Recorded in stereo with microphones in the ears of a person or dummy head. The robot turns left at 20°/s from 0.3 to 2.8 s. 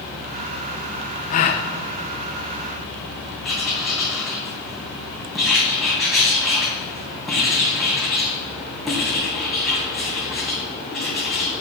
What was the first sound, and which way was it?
A gasp, 40° left (ahead or behind).